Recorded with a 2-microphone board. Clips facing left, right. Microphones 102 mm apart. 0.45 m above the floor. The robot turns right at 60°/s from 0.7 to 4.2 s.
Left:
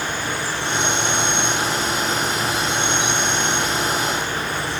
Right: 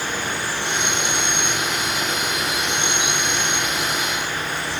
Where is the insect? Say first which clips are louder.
Left 1 dB; 155° right, 1.2 m; by 4.8 s 55° left, 1.2 m.